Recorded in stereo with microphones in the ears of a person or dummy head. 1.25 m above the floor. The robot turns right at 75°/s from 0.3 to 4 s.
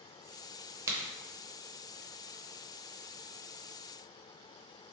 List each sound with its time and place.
0.9 s a crack: 15° right (ahead or behind), 0.6 m; by 1.0 s 5° right (ahead or behind), 0.6 m